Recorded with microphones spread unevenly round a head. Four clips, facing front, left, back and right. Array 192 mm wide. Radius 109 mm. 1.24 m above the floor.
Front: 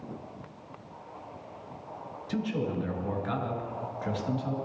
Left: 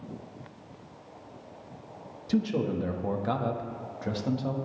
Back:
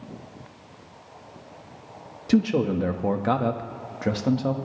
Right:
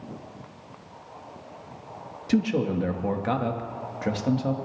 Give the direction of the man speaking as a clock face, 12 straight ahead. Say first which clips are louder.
Right 4 dB, back 10 dB; 5 o'clock.